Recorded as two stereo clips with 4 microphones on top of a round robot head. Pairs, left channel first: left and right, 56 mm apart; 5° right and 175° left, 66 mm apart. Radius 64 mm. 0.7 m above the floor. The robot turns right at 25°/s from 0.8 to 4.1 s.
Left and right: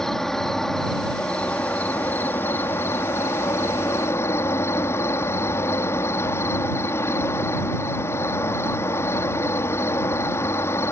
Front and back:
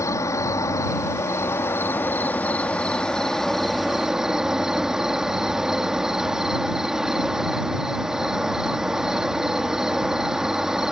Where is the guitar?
No guitar in this recording.